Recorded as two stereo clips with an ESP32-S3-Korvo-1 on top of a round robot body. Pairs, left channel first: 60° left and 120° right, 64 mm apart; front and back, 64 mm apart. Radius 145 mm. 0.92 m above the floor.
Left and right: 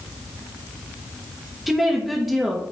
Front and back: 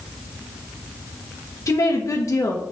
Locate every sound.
1.7 s a woman speaking: 35° right, 1.1 m